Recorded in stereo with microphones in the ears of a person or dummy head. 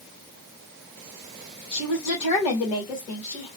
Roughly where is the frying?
No frying in this recording.